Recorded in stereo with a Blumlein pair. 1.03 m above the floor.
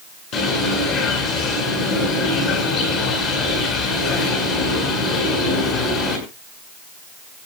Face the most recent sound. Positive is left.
turn(degrees=35)